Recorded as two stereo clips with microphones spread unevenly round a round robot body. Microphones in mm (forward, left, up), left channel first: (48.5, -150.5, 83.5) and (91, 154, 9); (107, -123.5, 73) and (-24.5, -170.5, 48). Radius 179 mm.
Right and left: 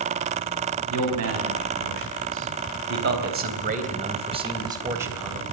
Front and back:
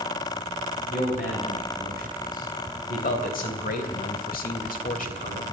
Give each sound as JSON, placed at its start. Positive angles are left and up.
{"t": 0.9, "sound": "a man speaking", "azimuth_deg": 60, "distance_m": 4.0}